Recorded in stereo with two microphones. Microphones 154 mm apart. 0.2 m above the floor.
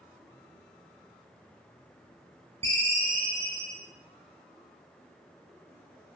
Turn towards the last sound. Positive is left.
turn(degrees=-40)  # may be behind; listen again after turning